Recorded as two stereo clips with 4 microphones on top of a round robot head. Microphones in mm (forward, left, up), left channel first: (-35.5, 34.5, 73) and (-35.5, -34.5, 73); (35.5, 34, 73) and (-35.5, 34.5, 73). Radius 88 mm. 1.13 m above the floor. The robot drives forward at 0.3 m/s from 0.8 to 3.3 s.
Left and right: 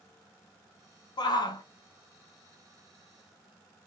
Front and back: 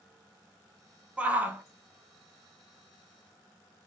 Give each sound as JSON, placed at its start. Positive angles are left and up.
{"t": 1.2, "sound": "a shout", "azimuth_deg": 105, "distance_m": 0.9}